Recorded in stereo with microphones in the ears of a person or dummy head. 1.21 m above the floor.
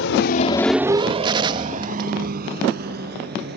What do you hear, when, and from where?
0.0 s a vehicle: 80° left; by 3.6 s 55° right (ahead or behind)
1.2 s a gunshot: 25° right (ahead or behind)